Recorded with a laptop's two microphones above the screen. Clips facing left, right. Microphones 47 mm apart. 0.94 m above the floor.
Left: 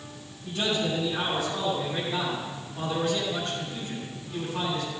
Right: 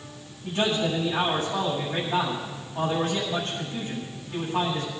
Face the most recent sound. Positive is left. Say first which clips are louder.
# right 3 dB
turn(degrees=-40)  # may be behind; listen again after turning